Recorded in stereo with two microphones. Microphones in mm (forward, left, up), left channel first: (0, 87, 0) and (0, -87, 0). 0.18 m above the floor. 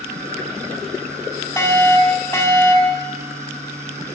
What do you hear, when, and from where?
1.6 s a fire alarm: 15° left (ahead or behind), 2.5 m